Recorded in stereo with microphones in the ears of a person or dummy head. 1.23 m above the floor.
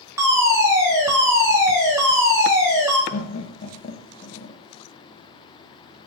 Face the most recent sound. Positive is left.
turn(degrees=45)  # may be behind; listen again after turning